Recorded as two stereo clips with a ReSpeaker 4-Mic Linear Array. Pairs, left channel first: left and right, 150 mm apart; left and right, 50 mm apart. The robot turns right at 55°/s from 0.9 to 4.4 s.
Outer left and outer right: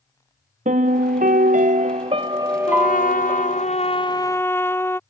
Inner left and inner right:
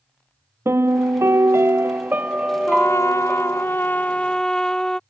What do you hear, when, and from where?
0.7 s a piano: 110° right; by 3.7 s 40° left
2.7 s a trumpet: 70° left; by 5.0 s 165° left